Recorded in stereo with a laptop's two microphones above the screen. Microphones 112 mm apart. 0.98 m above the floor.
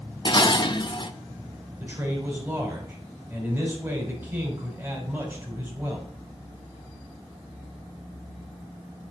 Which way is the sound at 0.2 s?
45° left (ahead or behind).